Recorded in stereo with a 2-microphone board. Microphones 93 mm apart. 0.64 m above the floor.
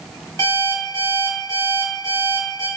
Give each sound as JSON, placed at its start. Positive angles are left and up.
{"t": 0.4, "sound": "an alarm clock", "side_deg": 35, "distance_m": 1.8}